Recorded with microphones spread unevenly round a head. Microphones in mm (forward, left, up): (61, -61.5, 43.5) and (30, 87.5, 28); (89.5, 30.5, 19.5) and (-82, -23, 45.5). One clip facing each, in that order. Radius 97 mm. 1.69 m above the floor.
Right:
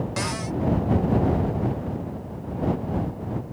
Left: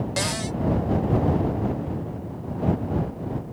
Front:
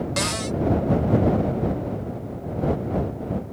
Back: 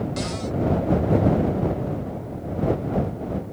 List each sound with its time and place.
0.2 s a cupboard door: 45° left